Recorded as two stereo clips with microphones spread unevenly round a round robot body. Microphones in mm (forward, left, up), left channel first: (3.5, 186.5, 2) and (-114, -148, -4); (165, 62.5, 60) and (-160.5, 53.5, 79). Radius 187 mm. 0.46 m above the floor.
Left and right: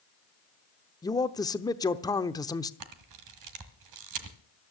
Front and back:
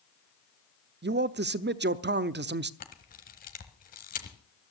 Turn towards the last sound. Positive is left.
turn(degrees=-65)